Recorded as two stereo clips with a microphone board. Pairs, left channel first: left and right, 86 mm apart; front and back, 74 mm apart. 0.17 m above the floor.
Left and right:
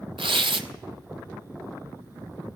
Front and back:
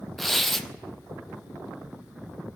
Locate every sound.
0.2 s tearing paper: 90° right, 0.9 m